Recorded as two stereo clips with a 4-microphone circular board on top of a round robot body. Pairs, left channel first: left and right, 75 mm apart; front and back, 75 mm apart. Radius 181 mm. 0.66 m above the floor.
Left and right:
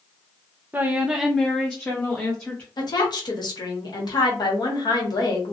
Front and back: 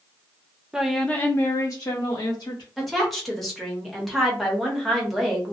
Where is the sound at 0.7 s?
110° right, 0.7 m; by 2.7 s 30° left, 1.5 m.